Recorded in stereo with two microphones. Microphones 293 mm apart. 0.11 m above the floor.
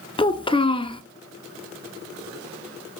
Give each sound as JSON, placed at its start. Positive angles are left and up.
{"t": 0.2, "sound": "a child speaking", "side_deg": 20, "distance_m": 0.7}